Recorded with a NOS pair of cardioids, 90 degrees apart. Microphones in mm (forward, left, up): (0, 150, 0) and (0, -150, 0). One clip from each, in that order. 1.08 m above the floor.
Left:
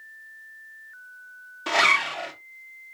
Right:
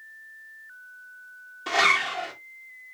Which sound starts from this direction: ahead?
A zipper, at 1.7 s.